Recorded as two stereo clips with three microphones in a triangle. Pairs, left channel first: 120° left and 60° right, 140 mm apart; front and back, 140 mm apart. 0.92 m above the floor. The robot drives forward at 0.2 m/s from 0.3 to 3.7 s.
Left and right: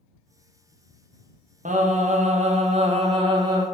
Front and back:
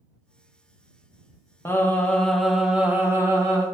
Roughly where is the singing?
Right.